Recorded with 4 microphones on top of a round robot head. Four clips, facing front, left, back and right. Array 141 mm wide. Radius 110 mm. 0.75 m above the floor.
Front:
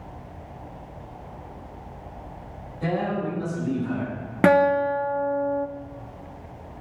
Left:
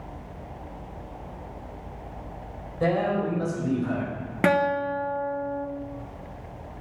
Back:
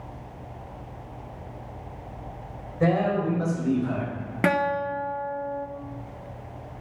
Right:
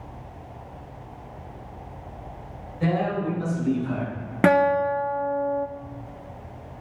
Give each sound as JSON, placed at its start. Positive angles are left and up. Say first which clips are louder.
{"t": 2.8, "sound": "a man speaking", "louder": "left 1 dB, back 3 dB", "azimuth_deg": 145, "distance_m": 4.0}
{"t": 4.4, "sound": "a guitar", "louder": "right 4 dB, front 6 dB", "azimuth_deg": -40, "distance_m": 0.9}